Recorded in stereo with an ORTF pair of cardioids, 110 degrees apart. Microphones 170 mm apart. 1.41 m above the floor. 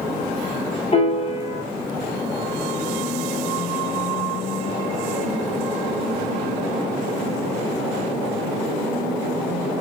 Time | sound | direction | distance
0.9 | a piano | 35° left | 0.9 m